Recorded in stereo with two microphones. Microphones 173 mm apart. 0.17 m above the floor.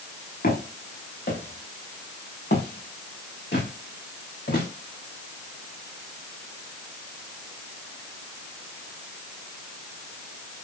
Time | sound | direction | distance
0.4 | footsteps | 75° left (ahead or behind) | 5 m